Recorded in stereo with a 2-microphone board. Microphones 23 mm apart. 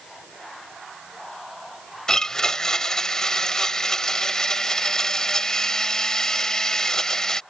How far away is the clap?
I don't hear a clap.